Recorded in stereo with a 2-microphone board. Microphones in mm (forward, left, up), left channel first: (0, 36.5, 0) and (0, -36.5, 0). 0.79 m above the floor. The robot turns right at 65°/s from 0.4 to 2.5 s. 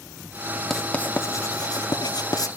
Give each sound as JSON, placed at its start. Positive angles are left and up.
{"t": 0.7, "sound": "writing", "side_deg": 5, "distance_m": 1.3}